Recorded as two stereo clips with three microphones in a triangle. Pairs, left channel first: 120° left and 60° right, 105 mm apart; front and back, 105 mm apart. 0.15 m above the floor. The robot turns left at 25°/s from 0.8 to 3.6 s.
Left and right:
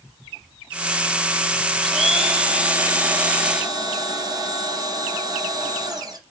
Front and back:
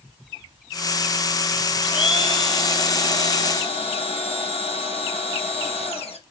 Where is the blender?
30° left, 5.5 m; by 6.2 s 10° right, 5.5 m.